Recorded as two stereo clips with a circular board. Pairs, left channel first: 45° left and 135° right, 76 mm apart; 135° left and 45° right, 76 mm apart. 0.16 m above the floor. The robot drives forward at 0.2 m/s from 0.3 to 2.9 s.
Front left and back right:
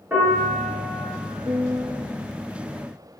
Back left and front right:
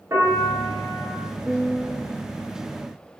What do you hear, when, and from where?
0.1 s a piano: 70° right, 1.9 m; by 1.1 s 75° right, 1.9 m
1.4 s a piano: 135° right, 0.5 m; by 2.1 s 145° right, 0.6 m